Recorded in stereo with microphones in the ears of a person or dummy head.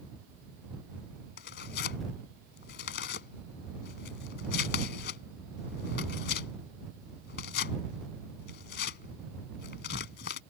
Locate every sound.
1.4 s tearing paper: 60° left (ahead or behind)